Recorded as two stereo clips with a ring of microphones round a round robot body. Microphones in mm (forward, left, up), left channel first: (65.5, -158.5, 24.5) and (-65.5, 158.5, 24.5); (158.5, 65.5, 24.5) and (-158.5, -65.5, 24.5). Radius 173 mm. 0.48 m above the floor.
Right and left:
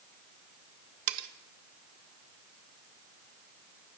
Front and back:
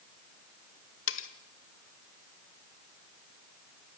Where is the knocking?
I don't hear knocking.